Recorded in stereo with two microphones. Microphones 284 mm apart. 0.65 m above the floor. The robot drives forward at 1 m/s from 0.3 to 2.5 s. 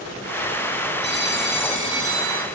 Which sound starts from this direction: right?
A phone ringing, at 1.0 s.